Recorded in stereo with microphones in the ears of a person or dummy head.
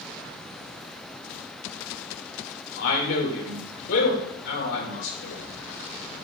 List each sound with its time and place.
2.8 s a man speaking: 70° left (ahead or behind), 2 m